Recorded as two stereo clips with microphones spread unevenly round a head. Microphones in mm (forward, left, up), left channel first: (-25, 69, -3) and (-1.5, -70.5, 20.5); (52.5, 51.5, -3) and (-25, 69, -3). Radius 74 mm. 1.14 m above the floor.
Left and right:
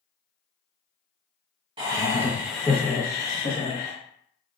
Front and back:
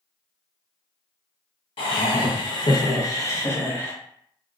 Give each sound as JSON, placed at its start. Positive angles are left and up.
{"t": 1.8, "sound": "laughter", "azimuth_deg": -20, "distance_m": 1.0}